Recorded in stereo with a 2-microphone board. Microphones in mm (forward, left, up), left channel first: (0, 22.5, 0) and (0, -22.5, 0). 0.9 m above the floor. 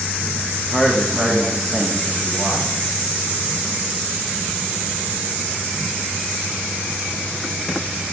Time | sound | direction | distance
0.7 | a man speaking | 5° right (ahead or behind) | 1.2 m